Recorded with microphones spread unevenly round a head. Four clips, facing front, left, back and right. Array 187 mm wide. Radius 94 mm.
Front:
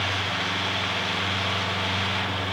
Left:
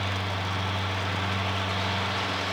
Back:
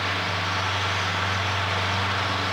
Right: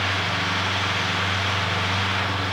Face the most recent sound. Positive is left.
No sound to turn to.